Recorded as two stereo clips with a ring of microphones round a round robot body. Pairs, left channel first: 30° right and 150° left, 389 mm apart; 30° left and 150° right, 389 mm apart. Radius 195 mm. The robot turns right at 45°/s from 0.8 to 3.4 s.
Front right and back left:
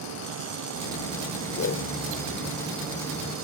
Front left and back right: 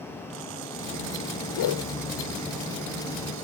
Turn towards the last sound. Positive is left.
turn(degrees=105)